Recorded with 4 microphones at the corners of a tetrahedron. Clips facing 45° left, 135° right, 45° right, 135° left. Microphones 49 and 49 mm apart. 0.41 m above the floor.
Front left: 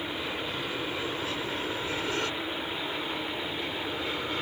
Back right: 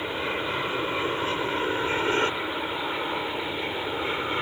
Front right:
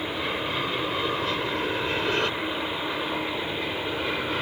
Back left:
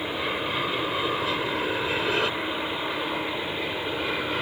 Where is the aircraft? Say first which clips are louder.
Back right 5 dB, even; 145° right; by 4.4 s 140° right.